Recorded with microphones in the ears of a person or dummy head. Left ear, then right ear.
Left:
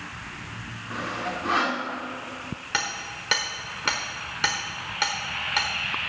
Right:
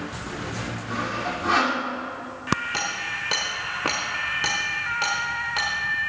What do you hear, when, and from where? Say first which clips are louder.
0.9 s sawing: right 2 dB; 5° right (ahead or behind), 2 m
2.7 s hammering: right 2 dB; 20° left (ahead or behind), 1.4 m